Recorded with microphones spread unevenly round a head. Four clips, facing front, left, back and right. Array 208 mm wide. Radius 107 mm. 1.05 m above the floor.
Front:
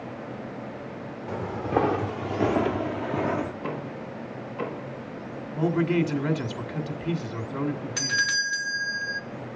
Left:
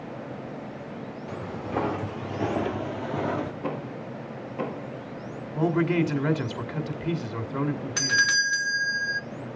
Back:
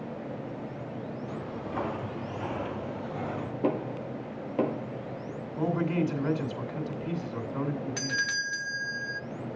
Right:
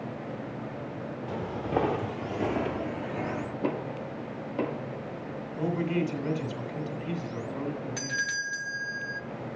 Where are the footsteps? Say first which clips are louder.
Right 2 dB, front 14 dB; 30° right, 1.8 m; by 3.5 s 45° left, 1.5 m.